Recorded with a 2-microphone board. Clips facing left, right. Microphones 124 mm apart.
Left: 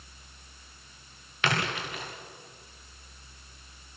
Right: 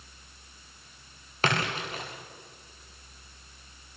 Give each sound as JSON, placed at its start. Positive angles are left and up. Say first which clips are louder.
{"t": 1.4, "sound": "a splash", "louder": "right 1 dB", "side_deg": -40, "distance_m": 7.5}